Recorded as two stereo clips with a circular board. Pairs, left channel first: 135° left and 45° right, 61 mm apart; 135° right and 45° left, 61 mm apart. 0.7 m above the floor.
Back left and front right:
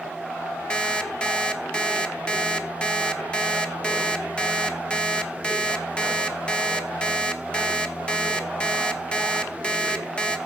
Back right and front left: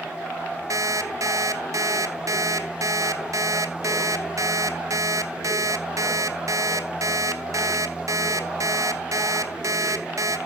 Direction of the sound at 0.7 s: 65° left.